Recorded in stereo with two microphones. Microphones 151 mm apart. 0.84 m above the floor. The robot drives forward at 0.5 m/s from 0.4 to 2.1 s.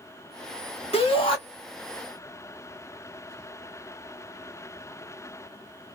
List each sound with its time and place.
0.9 s a shout: 40° left (ahead or behind), 1.4 m; by 1.4 s 35° left (ahead or behind), 1.5 m